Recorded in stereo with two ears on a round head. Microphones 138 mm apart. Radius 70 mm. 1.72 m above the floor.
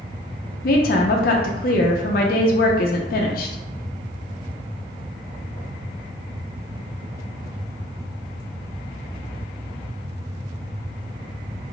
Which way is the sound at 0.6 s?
65° left (ahead or behind).